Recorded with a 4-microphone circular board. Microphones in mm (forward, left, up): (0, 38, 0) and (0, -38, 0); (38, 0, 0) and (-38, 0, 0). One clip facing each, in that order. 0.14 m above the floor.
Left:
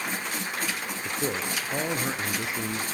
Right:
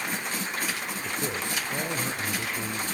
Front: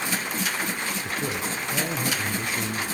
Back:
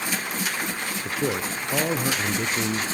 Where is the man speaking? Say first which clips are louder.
Left 3 dB, back 6 dB; 155° left, 1.6 m.